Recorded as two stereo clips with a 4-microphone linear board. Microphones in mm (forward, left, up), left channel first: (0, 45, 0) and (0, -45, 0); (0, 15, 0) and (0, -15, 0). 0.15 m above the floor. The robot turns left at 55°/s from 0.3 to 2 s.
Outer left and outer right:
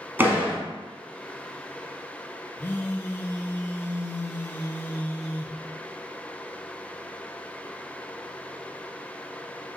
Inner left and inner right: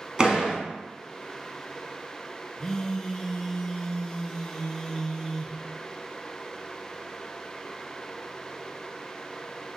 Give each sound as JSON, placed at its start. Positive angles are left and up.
{"t": 0.2, "sound": "a door slam", "side_deg": -20, "distance_m": 1.0}
{"t": 2.6, "sound": "a phone buzzing", "side_deg": 20, "distance_m": 0.6}